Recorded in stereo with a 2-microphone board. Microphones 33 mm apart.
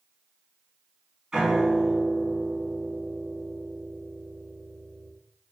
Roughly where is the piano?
Right.